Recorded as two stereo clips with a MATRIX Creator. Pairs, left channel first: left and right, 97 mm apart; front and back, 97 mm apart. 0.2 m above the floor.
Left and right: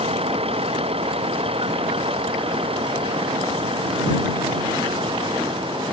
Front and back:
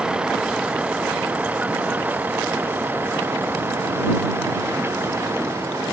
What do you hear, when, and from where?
0.0 s a vehicle: 100° right; by 5.9 s 115° right